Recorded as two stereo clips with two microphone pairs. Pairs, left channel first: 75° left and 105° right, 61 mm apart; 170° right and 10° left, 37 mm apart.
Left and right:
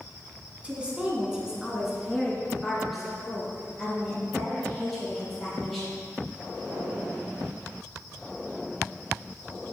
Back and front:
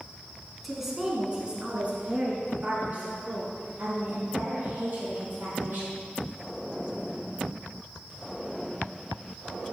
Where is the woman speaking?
65° right, 1.4 m; by 6.0 s 10° right, 5 m.